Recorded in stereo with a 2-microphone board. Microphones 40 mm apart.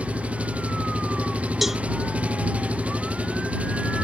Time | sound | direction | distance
0.0 | an engine running | 30° right (ahead or behind) | ?
1.6 | a cowbell | 5° right (ahead or behind) | ?